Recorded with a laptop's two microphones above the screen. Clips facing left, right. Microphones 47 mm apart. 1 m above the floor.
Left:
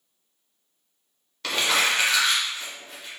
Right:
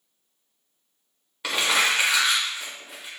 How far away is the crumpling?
About 1.0 m.